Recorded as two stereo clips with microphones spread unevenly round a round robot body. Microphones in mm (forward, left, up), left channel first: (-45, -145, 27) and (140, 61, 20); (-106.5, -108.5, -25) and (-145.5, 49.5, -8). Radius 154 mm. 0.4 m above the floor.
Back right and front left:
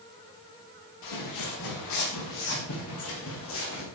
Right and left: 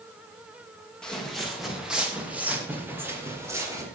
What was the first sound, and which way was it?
Footsteps, 160° right.